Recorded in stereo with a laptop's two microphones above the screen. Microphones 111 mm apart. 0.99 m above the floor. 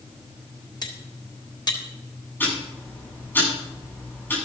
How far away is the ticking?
About 8.5 m.